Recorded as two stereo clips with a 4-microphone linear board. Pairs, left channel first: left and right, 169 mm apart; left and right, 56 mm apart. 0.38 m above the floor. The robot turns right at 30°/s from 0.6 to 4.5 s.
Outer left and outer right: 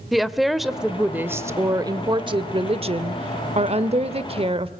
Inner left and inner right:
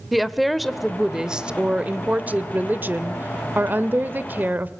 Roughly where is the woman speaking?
Behind.